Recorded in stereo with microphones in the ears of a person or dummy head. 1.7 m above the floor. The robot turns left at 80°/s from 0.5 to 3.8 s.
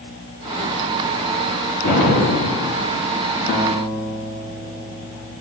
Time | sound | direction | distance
1.8 | an explosion | 120° left | 6 m
3.5 | a guitar | 35° left (ahead or behind) | 3.5 m